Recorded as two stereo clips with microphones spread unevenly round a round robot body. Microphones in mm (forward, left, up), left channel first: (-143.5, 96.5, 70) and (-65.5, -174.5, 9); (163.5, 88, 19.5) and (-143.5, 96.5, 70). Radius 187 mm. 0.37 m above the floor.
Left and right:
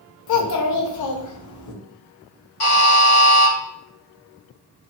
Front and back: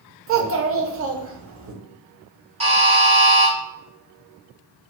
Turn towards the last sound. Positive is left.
turn(degrees=105)